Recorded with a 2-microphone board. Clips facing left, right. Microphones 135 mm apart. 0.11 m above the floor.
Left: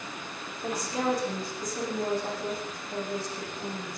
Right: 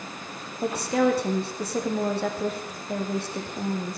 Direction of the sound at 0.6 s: 70° right (ahead or behind).